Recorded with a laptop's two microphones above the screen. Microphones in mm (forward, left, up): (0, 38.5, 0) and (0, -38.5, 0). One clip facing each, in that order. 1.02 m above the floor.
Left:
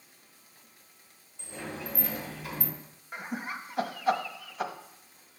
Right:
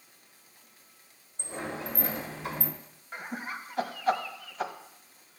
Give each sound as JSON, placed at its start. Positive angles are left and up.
{"t": 1.4, "sound": "a sliding door", "side_deg": -30, "distance_m": 1.3}
{"t": 3.1, "sound": "laughter", "side_deg": 5, "distance_m": 1.4}